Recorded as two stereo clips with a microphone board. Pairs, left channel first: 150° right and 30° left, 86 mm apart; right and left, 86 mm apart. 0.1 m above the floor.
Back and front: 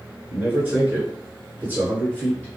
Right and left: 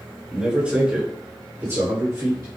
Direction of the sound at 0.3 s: 20° left.